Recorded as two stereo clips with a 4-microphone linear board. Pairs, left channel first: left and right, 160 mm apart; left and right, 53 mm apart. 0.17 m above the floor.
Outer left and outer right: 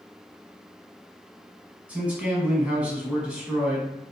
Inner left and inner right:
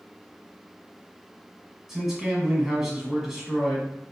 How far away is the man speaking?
About 1.2 m.